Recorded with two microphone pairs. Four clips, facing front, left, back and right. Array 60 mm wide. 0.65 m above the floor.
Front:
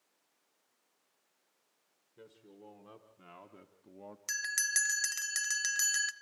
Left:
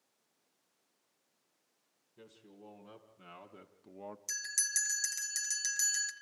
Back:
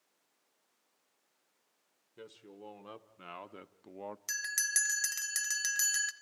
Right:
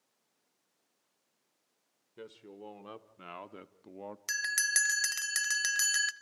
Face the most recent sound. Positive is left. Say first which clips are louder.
# right 12 dB, front 2 dB
turn(degrees=-80)